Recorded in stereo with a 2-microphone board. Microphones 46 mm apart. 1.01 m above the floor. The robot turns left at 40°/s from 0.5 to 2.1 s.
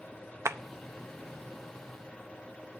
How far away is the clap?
About 0.6 m.